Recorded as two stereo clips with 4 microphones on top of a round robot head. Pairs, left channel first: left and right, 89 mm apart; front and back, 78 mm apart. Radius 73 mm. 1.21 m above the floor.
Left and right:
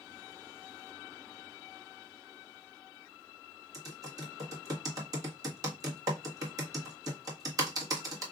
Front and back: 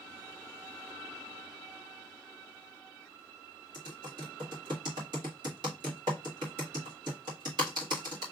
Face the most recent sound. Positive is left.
turn(degrees=-140)